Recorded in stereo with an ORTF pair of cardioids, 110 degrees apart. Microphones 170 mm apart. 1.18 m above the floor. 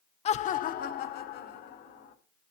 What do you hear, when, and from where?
0.2 s laughter: 40° left, 0.5 m; by 2.1 s 75° left, 1.8 m